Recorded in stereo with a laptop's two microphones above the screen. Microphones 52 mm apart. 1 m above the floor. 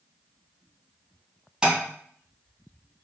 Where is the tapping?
10° right (ahead or behind), 2.5 m.